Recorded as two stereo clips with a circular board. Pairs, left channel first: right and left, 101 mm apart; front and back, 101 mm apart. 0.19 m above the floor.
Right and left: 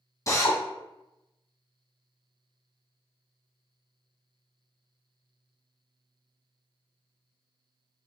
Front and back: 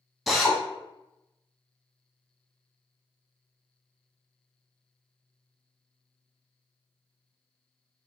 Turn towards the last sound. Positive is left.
turn(degrees=-90)